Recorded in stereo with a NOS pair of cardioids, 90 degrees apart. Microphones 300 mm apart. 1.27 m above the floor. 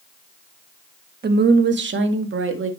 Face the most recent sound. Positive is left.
turn(degrees=-45)